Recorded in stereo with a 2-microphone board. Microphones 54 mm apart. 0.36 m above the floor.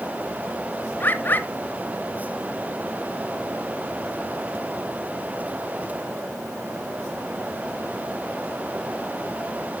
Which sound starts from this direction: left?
A bird, at 1.0 s.